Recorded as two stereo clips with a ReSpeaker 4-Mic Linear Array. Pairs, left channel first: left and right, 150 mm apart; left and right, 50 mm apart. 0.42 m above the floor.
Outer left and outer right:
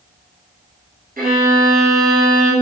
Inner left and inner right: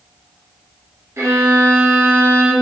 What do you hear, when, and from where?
1.2 s a violin: 80° right, 2 m